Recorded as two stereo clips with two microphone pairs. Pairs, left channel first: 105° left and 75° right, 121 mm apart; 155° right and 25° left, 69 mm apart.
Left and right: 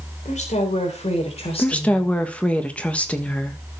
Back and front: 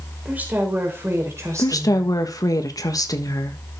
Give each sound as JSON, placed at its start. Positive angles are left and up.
{"t": 0.2, "sound": "a woman speaking", "azimuth_deg": 90, "distance_m": 3.5}
{"t": 1.6, "sound": "a woman speaking", "azimuth_deg": -175, "distance_m": 1.5}